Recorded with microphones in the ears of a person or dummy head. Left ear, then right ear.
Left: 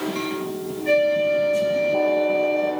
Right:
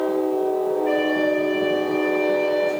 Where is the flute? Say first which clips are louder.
Left 6 dB; 35° right (ahead or behind), 9 m.